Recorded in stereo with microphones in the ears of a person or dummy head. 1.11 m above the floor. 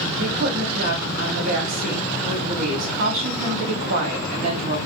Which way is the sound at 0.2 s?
50° right (ahead or behind).